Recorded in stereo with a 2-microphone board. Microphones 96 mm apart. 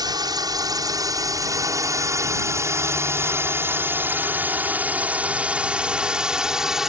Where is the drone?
45° right (ahead or behind); by 6.9 s 5° right (ahead or behind).